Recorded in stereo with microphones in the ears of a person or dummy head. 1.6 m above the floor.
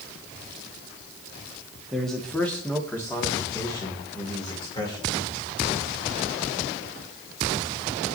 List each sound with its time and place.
1.9 s a man speaking: centre (ahead or behind), 1.6 m; by 5.1 s 25° left (ahead or behind), 3 m